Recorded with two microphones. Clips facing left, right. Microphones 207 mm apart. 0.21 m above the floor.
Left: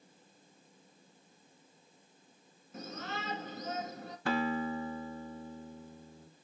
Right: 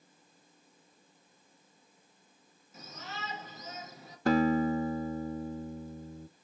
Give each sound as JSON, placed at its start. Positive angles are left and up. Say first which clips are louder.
{"t": 2.7, "sound": "a shout", "louder": "left 5 dB", "side_deg": 60, "distance_m": 2.5}
{"t": 4.3, "sound": "a guitar", "louder": "right 7 dB", "side_deg": -40, "distance_m": 0.7}